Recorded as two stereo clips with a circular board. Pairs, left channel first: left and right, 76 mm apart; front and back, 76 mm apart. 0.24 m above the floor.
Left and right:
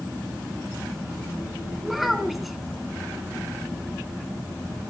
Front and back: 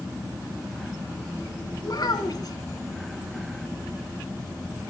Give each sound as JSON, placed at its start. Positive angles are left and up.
{"t": 1.8, "sound": "a child speaking", "azimuth_deg": 0, "distance_m": 1.4}